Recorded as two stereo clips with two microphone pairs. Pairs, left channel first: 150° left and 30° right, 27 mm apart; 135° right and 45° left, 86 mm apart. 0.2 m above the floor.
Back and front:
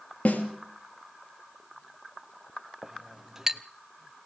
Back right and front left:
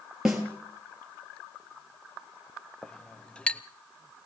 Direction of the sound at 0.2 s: 130° left.